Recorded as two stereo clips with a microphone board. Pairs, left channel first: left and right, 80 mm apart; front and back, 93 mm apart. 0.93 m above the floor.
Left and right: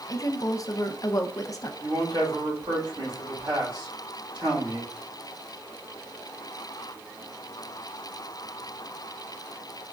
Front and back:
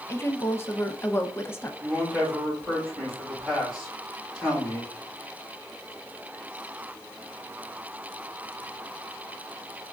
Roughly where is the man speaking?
Right.